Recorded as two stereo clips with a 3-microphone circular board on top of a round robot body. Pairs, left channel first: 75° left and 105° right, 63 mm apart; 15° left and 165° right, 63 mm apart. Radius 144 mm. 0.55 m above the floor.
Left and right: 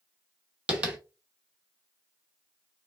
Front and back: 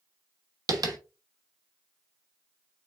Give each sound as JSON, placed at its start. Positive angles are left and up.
{"t": 0.7, "sound": "tapping", "azimuth_deg": -175, "distance_m": 1.0}